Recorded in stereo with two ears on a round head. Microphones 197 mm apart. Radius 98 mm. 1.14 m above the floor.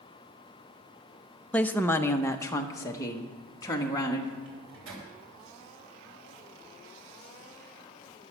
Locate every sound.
1.5 s a woman speaking: 5° left (ahead or behind), 0.6 m; by 4.3 s 20° left (ahead or behind), 2 m
4.5 s a microwave: 70° right (ahead or behind), 4 m